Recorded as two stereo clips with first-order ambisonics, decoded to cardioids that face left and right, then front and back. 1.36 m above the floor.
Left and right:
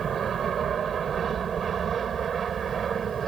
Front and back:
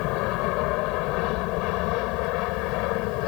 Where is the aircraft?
25° right; by 3.3 s 20° right.